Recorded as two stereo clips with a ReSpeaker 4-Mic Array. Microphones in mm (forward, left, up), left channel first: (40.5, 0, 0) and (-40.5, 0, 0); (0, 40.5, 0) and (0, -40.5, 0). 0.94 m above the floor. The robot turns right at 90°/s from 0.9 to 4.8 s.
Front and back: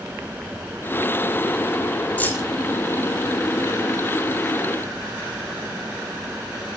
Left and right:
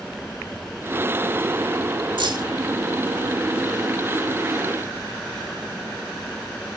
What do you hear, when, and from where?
2.2 s keys jangling: 75° right, 1.8 m; by 2.5 s 50° right, 1.8 m